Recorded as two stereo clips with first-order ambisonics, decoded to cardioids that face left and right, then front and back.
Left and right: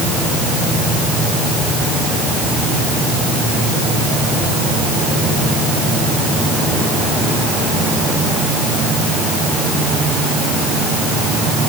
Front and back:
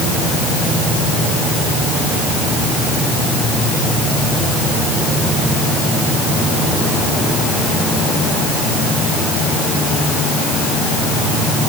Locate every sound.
Only background noise.